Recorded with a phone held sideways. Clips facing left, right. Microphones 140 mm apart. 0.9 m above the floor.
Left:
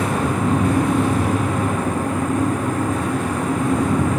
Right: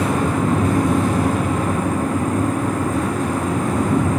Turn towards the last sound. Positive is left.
turn(degrees=-40)  # may be behind; listen again after turning